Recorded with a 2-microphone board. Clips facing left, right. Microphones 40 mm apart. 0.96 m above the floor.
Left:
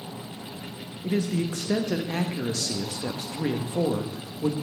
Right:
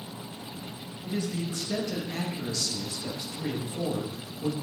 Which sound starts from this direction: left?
A man speaking, at 1.0 s.